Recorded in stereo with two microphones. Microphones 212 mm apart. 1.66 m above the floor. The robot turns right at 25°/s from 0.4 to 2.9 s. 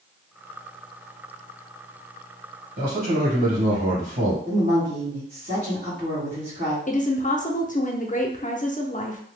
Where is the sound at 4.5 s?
45° right (ahead or behind), 1.3 m.